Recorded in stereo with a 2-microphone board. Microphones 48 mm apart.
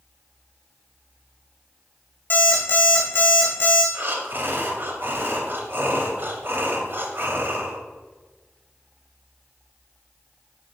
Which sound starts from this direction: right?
Breathing, at 3.9 s.